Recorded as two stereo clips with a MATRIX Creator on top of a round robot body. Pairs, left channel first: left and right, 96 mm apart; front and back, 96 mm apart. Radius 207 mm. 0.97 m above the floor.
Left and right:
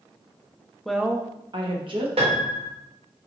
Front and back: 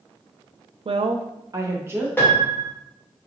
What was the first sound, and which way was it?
A woman speaking, 175° left.